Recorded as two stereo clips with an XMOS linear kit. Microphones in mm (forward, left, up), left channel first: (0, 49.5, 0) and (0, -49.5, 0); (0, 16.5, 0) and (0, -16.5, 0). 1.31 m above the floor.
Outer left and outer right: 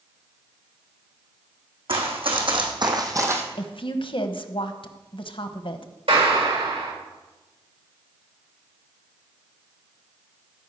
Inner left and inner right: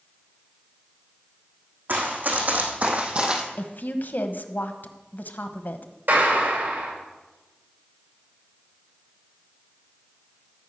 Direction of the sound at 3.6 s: 60° left (ahead or behind).